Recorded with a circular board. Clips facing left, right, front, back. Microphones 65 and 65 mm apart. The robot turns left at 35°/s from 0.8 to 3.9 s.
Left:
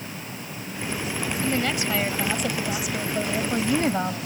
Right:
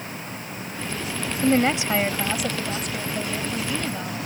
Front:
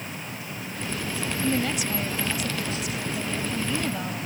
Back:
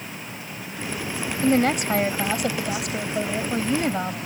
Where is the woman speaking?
140° right; by 4.2 s 135° left.